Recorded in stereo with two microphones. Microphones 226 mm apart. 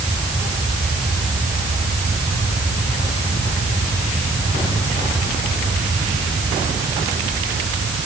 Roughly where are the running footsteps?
I don't hear running footsteps.